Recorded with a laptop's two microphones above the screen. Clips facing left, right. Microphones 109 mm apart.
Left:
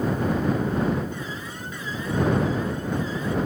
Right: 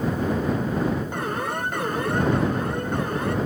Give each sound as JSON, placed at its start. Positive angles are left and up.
{"t": 1.1, "sound": "an alarm", "side_deg": -60}